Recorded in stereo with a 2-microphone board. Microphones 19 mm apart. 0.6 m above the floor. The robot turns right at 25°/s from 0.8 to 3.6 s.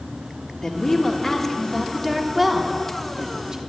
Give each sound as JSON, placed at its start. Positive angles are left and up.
{"t": 0.6, "sound": "a woman speaking", "azimuth_deg": 145, "distance_m": 1.4}